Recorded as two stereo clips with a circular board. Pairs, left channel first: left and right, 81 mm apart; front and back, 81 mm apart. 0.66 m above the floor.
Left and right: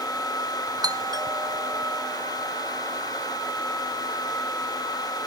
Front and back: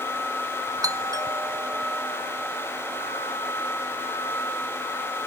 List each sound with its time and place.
0.8 s a doorbell: 130° right